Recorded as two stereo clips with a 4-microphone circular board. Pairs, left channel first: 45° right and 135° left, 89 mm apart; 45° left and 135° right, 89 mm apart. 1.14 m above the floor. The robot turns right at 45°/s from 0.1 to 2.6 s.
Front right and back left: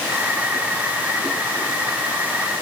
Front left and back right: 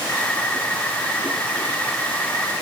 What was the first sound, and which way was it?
Only background noise.